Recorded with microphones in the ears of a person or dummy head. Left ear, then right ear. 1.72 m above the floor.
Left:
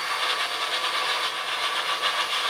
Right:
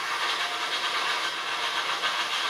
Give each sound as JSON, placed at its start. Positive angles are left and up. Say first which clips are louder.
{"t": 0.0, "sound": "a machine running", "louder": "left 2 dB", "side_deg": 15, "distance_m": 1.0}